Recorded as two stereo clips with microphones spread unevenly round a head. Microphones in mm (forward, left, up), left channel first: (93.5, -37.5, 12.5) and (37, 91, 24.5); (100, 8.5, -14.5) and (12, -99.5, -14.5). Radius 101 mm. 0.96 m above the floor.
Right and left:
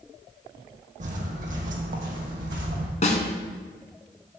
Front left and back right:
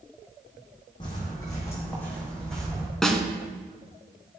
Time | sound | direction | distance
1.0 | footsteps | 110° left | 1.8 m
3.0 | a snare drum | 35° right | 1.4 m